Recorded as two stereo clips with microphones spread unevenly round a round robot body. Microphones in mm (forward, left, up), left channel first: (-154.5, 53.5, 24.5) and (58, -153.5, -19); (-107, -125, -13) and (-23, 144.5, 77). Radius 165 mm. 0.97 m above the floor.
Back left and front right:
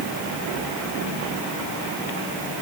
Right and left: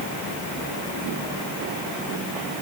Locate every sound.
Only background noise.